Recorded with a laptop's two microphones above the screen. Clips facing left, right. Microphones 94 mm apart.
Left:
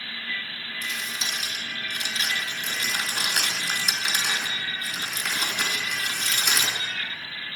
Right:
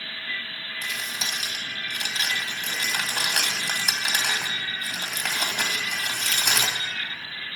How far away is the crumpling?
About 1.9 m.